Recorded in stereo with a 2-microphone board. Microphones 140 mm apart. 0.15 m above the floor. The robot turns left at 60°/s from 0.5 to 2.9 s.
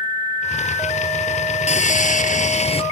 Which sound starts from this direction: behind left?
Sawing, at 1.7 s.